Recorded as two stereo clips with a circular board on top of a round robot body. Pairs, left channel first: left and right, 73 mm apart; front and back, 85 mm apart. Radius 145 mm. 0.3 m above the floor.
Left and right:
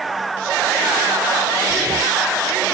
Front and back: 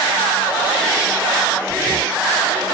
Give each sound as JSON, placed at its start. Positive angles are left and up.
{"t": 1.7, "sound": "breathing", "azimuth_deg": -45}